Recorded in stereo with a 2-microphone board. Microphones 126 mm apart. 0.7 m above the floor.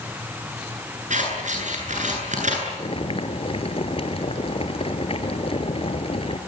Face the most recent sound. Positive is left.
turn(degrees=50)  # may be behind; listen again after turning